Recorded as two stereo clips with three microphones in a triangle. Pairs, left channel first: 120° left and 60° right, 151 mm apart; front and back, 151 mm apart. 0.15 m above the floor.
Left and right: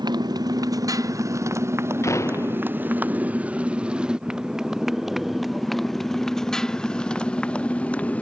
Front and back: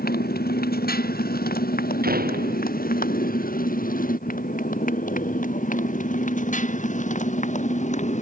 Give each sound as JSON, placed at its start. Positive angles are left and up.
{"t": 0.0, "sound": "a motorcycle", "azimuth_deg": 5}
{"t": 2.0, "sound": "a door slam", "azimuth_deg": -170}